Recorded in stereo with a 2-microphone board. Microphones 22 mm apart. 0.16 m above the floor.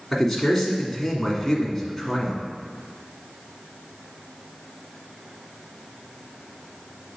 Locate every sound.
0.1 s a man speaking: 5° left (ahead or behind), 1.3 m